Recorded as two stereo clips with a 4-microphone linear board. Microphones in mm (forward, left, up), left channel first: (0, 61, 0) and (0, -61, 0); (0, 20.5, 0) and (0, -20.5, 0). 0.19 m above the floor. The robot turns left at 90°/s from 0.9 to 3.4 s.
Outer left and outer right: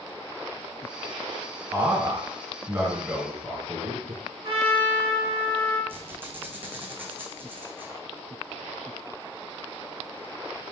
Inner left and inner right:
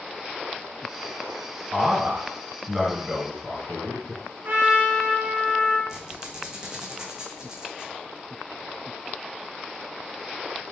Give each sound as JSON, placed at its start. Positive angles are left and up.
{"t": 1.7, "sound": "a man speaking", "side_deg": -20, "distance_m": 1.4}
{"t": 4.4, "sound": "a trumpet", "side_deg": -55, "distance_m": 1.7}
{"t": 5.9, "sound": "a squeak", "side_deg": -20, "distance_m": 1.0}